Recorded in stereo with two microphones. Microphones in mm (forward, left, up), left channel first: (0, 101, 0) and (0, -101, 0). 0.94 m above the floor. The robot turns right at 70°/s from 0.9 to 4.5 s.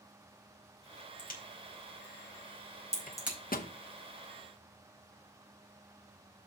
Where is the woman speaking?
I don't hear a woman speaking.